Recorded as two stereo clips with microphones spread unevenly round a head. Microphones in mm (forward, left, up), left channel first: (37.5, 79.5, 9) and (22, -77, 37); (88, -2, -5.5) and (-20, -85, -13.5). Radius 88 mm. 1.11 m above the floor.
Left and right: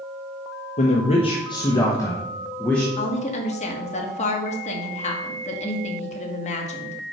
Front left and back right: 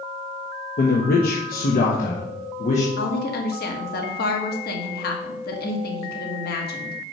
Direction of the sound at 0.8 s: 45° left.